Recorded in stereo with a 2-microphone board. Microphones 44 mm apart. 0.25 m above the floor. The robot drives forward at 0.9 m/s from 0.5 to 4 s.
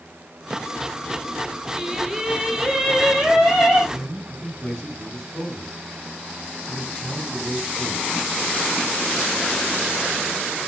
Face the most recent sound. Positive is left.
turn(degrees=5)  # may be behind; listen again after turning